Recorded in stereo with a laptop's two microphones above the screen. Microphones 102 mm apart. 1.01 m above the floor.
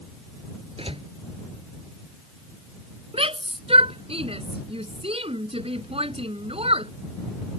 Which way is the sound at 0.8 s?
65° right (ahead or behind).